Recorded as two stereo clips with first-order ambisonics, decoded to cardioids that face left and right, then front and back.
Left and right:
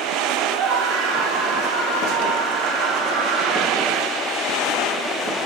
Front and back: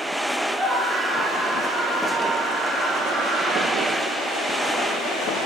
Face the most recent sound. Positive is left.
turn(degrees=-105)